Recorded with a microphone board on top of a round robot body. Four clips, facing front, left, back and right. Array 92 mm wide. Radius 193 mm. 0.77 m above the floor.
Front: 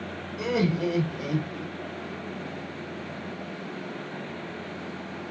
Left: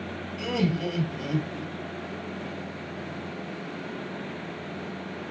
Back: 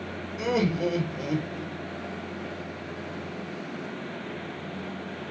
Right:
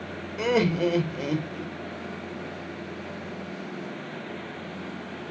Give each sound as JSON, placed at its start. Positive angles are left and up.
{"t": 0.4, "sound": "laughter", "azimuth_deg": -100, "distance_m": 2.5}